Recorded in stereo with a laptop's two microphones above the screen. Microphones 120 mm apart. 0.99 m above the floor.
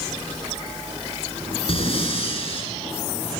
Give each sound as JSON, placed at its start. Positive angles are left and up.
{"t": 1.7, "sound": "breathing", "side_deg": 50, "distance_m": 8.0}